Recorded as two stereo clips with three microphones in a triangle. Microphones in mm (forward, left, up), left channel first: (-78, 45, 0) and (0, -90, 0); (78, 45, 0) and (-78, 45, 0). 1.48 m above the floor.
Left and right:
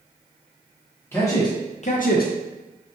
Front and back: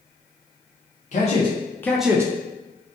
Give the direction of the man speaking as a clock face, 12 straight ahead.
11 o'clock.